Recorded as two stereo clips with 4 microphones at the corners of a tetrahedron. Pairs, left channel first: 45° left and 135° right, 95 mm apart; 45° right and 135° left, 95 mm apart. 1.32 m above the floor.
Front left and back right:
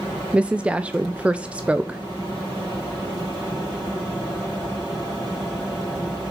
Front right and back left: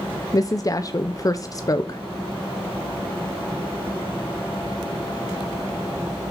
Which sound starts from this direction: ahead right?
A woman speaking, at 0.3 s.